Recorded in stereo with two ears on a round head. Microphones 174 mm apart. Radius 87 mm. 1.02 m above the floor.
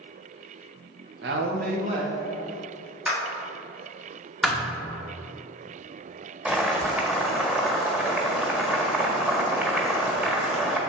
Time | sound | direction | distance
1.2 | a woman speaking | 60° right (ahead or behind) | 1.2 m
3.0 | a clap | 5° right (ahead or behind) | 1.9 m
4.4 | a thud | centre (ahead or behind) | 0.9 m
6.5 | boiling | 5° right (ahead or behind) | 1.3 m